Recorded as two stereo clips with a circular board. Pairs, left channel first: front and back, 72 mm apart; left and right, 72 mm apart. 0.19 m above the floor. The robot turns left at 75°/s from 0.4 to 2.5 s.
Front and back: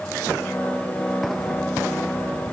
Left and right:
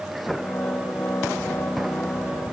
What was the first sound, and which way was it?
Only background noise.